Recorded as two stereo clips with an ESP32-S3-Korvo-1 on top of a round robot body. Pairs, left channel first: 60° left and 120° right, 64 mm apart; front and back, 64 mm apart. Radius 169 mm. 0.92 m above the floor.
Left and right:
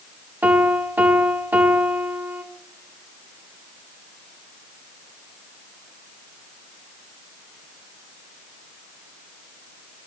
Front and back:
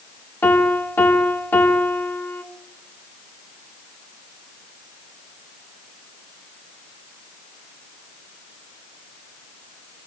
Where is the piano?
55° right, 1.6 m.